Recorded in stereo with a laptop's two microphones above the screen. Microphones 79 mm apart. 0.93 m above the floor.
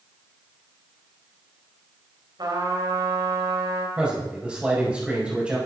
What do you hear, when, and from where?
2.4 s a trumpet: 60° right (ahead or behind), 3.5 m
4.0 s a man speaking: 15° right (ahead or behind), 5 m